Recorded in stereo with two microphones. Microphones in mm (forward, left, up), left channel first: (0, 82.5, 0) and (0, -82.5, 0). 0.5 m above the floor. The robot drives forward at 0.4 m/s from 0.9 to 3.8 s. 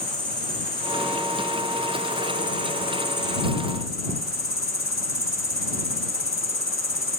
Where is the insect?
5° left (ahead or behind), 1.5 m; by 7.2 s 20° left (ahead or behind), 0.5 m.